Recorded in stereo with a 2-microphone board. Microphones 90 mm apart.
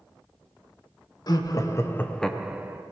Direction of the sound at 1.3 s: 50° left (ahead or behind).